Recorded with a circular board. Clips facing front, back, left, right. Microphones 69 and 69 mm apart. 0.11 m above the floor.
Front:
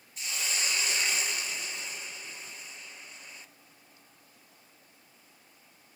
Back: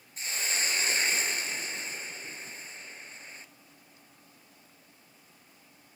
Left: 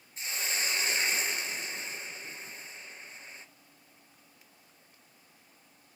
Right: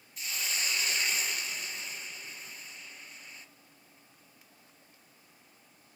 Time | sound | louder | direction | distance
0.2 | a hiss | back 2 dB, left 2 dB | 135° left | 1.2 m